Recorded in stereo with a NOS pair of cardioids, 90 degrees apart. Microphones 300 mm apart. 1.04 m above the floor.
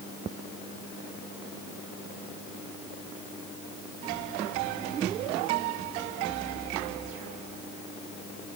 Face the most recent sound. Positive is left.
No sound to turn to.